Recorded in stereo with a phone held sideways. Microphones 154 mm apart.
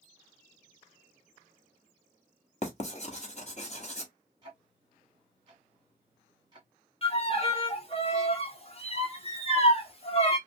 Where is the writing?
45° left (ahead or behind), 0.9 m.